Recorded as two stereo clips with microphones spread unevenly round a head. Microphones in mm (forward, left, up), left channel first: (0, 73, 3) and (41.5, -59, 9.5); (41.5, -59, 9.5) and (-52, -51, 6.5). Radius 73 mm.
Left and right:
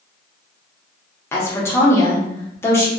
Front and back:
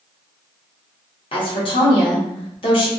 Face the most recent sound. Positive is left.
turn(degrees=35)